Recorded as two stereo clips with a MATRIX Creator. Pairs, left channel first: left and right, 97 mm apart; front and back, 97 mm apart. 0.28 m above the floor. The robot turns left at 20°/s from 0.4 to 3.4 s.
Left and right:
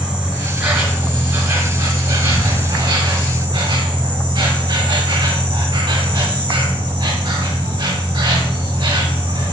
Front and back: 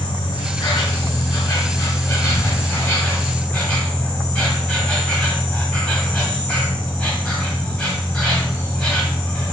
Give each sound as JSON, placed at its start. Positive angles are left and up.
{"t": 0.0, "sound": "an insect", "azimuth_deg": -20, "distance_m": 0.9}